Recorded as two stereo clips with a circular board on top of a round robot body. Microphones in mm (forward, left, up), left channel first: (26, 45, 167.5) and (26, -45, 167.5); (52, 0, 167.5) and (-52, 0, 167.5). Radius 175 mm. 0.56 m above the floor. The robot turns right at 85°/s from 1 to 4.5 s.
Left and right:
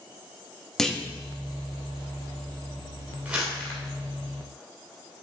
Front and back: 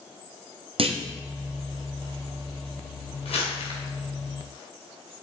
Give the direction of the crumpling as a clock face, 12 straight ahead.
1 o'clock.